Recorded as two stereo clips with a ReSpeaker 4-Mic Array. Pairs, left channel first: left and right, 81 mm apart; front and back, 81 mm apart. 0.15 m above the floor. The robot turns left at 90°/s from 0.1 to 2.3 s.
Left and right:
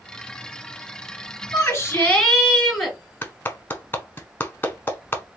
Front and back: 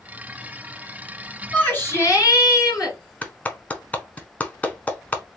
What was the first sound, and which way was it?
A shout, 75° left.